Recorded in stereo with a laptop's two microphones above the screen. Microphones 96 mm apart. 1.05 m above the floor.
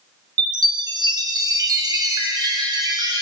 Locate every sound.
0.4 s a chime: 45° right (ahead or behind), 0.7 m